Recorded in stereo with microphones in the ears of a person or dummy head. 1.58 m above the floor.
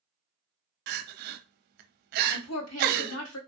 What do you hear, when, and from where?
0.9 s crying: 50° right (ahead or behind), 0.5 m
2.3 s a woman speaking: 80° left, 1.1 m